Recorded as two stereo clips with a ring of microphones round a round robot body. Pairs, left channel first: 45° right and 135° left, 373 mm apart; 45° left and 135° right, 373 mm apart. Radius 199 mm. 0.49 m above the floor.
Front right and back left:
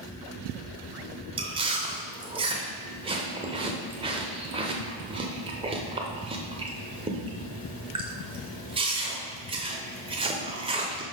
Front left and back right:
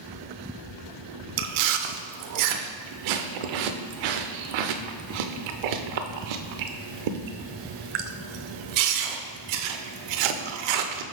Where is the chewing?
150° right, 0.6 m.